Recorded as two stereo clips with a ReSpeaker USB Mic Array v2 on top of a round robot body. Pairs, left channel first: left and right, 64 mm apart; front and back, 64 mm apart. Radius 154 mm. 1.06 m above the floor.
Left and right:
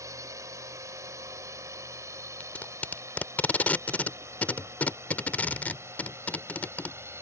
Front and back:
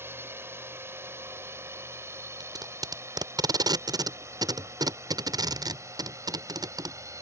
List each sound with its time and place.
0.0 s a drone: 125° right; by 7.2 s 140° right
2.4 s tape being pulled: 160° left